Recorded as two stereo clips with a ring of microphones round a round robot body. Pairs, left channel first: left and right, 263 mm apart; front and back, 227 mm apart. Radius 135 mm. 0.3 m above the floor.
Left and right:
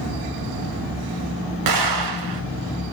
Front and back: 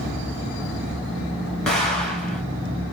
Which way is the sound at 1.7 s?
90° right.